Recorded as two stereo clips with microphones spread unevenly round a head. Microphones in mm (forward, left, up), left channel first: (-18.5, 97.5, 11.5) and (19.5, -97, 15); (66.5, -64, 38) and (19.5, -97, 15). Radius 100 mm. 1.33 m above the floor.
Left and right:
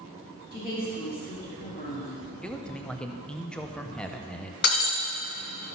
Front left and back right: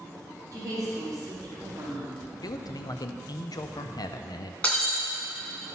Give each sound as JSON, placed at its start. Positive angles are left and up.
{"t": 0.5, "sound": "a woman speaking", "azimuth_deg": 150, "distance_m": 2.5}
{"t": 2.4, "sound": "a man speaking", "azimuth_deg": 15, "distance_m": 0.8}
{"t": 4.6, "sound": "breaking glass", "azimuth_deg": 80, "distance_m": 1.8}